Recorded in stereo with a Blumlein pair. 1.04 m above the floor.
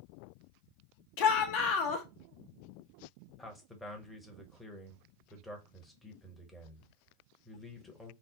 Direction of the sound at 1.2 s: 45° left.